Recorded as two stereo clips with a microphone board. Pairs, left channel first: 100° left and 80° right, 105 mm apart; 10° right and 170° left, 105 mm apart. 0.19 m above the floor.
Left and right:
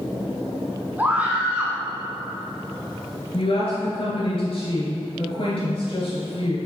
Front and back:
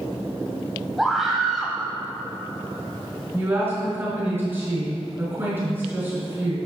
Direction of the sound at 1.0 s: 110° right.